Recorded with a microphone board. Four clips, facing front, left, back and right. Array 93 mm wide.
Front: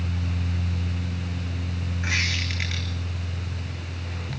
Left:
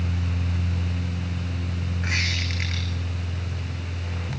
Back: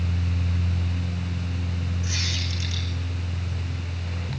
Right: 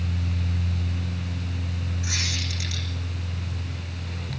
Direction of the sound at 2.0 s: 40° left.